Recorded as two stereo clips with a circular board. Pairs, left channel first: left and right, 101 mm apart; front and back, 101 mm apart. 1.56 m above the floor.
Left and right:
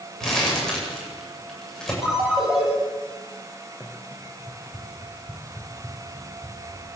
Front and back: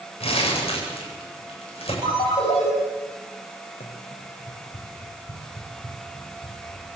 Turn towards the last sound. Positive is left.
turn(degrees=-10)